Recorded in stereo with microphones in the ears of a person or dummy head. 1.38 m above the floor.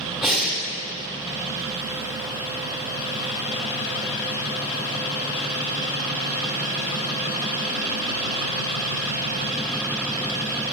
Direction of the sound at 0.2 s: Centre (ahead or behind).